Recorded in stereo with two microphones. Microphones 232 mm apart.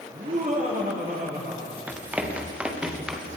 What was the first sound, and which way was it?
Laughter, 35° right (ahead or behind).